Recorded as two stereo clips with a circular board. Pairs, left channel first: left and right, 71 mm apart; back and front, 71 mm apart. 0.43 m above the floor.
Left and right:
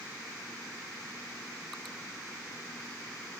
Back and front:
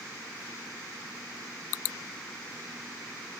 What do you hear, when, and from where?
Only background noise.